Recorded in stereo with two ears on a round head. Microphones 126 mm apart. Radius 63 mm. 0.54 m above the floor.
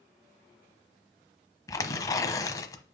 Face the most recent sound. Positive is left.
turn(degrees=25)  # may be behind; listen again after turning